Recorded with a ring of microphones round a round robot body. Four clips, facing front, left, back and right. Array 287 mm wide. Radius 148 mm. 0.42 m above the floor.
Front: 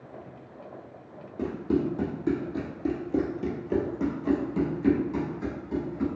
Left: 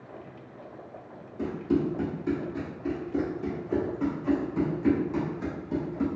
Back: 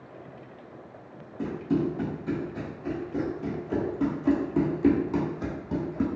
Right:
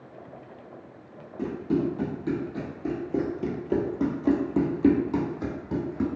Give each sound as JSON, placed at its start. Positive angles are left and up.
{"t": 1.4, "sound": "running footsteps", "azimuth_deg": -10, "distance_m": 1.5}